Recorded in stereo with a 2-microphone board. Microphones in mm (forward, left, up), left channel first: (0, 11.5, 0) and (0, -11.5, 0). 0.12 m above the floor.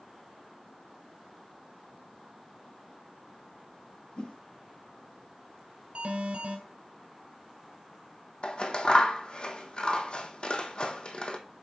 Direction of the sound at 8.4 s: 50° left (ahead or behind).